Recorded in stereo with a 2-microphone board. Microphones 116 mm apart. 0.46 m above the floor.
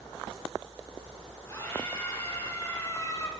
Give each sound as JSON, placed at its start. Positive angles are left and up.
{"t": 1.5, "sound": "a scream", "side_deg": 25, "distance_m": 6.0}